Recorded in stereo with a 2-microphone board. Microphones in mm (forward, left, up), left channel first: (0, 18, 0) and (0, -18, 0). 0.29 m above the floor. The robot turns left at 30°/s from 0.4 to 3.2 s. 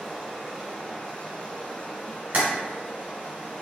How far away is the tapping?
About 1.3 m.